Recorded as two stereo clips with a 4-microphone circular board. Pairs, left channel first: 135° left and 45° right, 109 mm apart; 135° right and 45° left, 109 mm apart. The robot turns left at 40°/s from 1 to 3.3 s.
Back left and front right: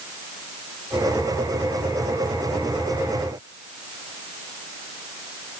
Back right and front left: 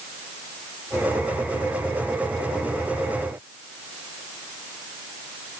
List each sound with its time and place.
Only background noise.